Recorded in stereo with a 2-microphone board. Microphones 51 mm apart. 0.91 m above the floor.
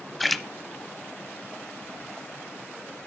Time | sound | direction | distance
0.2 | a splash | centre (ahead or behind) | 0.8 m